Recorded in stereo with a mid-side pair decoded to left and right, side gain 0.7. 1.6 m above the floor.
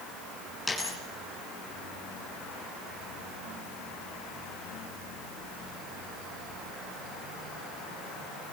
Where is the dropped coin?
Straight ahead, 8 m.